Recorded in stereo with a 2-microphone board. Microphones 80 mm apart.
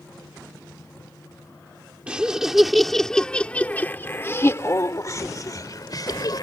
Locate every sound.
2.1 s laughter: 15° right (ahead or behind); by 6.4 s 60° left (ahead or behind)